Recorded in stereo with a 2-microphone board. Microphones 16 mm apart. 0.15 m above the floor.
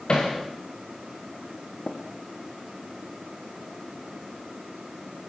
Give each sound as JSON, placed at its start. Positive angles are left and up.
{"t": 0.1, "sound": "hammering", "side_deg": 55, "distance_m": 5.5}
{"t": 1.9, "sound": "tapping", "side_deg": 45, "distance_m": 4.0}